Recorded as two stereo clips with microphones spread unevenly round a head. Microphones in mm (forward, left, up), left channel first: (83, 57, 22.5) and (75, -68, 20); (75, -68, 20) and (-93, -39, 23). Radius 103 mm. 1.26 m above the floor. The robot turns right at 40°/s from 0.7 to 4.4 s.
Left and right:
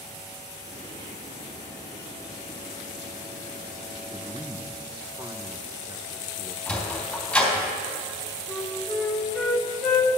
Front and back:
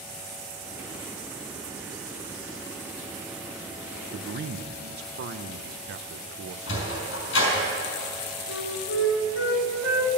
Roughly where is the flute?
Ahead.